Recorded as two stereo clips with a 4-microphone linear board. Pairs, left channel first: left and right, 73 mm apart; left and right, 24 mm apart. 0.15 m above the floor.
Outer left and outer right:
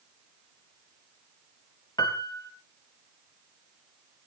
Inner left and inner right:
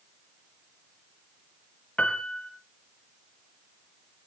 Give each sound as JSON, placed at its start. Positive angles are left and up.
{"t": 2.0, "sound": "a piano", "side_deg": 65, "distance_m": 2.0}